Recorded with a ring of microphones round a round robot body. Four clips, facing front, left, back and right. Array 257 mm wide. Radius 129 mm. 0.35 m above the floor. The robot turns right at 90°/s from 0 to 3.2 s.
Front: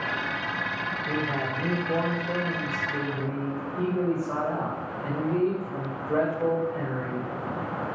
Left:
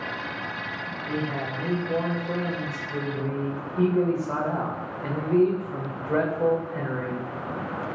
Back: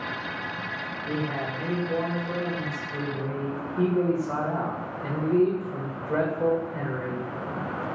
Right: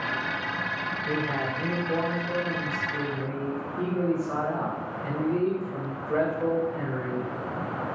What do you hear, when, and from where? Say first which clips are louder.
1.1 s a man speaking: even, even; 80° right, 0.8 m; by 7.3 s 110° left, 0.8 m